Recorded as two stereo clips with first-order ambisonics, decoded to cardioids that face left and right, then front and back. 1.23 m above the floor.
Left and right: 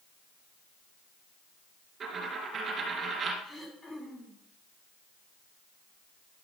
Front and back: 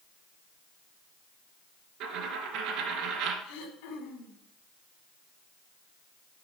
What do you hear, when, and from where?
2.0 s a dropped coin: 150° right, 2 m
3.4 s throat clearing: 10° left, 2.5 m